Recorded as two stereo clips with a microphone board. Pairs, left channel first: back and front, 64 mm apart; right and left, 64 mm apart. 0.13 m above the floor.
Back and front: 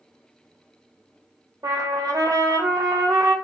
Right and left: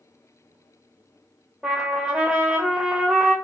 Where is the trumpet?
15° left, 0.6 m.